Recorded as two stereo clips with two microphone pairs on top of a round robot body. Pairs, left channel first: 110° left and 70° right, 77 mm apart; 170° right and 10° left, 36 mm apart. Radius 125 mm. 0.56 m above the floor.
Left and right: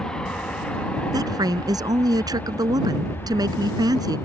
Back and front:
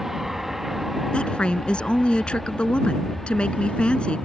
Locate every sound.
0.0 s an aircraft: 90° left; by 4.3 s 120° left
1.1 s a woman speaking: 105° right